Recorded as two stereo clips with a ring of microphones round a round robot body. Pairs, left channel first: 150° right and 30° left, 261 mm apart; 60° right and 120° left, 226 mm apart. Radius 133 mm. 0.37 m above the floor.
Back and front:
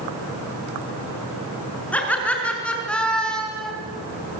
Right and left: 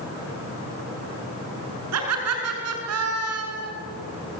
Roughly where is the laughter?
Behind left.